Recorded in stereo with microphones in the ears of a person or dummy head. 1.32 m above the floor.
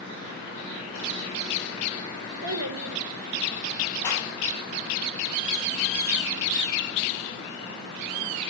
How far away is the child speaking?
About 3.5 m.